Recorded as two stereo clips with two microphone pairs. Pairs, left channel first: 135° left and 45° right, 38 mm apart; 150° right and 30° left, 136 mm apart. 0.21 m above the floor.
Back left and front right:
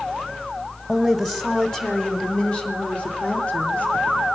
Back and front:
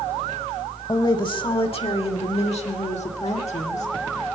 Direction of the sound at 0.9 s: 120° right.